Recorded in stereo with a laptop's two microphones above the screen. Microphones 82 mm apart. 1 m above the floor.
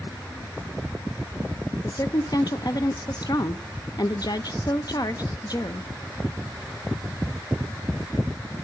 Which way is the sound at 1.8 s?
55° left (ahead or behind).